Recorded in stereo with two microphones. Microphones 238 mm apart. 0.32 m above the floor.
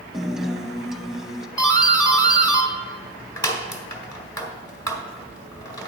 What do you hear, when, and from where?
0.1 s a guitar: centre (ahead or behind), 0.6 m
1.6 s a doorbell: 15° left (ahead or behind), 1.9 m